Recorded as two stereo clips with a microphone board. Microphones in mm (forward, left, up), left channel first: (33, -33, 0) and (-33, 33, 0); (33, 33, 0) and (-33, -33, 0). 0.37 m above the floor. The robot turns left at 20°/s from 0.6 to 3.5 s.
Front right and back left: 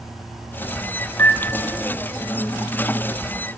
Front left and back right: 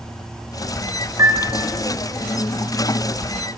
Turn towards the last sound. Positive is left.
turn(degrees=-140)